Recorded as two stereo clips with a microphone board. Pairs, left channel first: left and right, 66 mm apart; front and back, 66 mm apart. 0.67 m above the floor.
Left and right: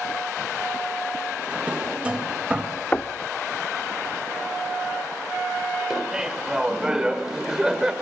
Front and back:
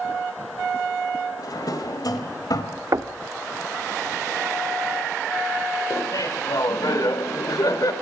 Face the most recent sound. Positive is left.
turn(degrees=-10)